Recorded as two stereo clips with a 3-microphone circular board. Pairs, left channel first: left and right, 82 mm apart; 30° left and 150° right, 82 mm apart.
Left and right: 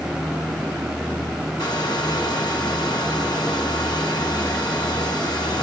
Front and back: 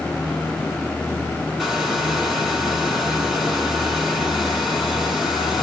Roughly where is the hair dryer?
Behind left.